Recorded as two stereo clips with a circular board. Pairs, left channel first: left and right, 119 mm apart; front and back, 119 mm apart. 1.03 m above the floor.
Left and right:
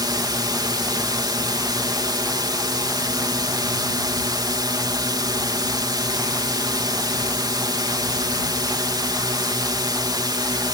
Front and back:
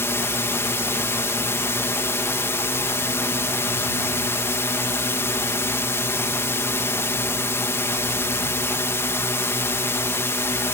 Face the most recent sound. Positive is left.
turn(degrees=-55)